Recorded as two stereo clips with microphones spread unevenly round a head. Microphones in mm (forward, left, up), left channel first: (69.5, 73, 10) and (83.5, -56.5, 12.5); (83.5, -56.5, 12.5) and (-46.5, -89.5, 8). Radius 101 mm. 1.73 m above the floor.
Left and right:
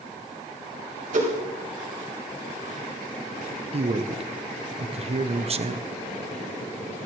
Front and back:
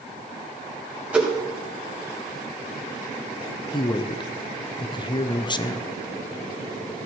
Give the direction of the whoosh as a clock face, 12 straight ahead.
3 o'clock.